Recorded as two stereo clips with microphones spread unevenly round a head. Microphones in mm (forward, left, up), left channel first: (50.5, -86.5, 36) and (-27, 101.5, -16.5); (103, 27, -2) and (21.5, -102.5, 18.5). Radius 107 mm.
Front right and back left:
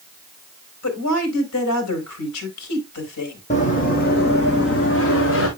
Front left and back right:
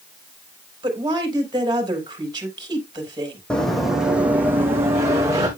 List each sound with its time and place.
0.8 s a woman speaking: 60° right, 3.5 m
3.5 s running footsteps: 30° right, 1.8 m; by 5.5 s 60° right, 3 m